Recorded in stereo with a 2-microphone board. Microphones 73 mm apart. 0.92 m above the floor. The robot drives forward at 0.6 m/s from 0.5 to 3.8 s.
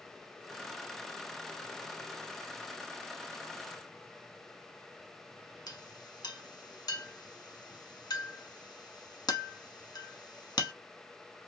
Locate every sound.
5.7 s a clink: 60° left (ahead or behind), 0.8 m